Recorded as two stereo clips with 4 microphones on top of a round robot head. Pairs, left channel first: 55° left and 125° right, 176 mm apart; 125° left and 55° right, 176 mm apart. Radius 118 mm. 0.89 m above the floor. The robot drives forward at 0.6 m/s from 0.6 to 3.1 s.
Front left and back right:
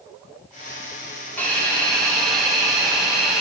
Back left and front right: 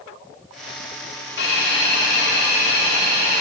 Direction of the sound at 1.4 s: 135° left.